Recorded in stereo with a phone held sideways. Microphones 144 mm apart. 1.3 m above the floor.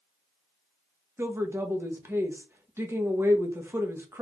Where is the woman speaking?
15° right (ahead or behind), 1.2 m.